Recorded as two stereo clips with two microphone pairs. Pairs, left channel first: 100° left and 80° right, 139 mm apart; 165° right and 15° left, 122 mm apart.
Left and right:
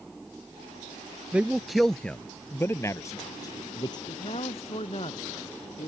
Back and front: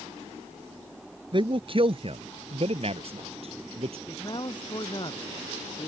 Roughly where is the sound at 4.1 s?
Behind left.